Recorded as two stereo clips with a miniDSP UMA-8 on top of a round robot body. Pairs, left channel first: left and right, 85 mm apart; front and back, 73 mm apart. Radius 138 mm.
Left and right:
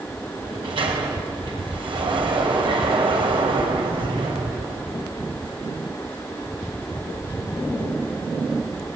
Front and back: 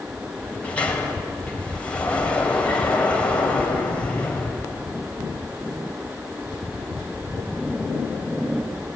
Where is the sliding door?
75° right, 4.5 m.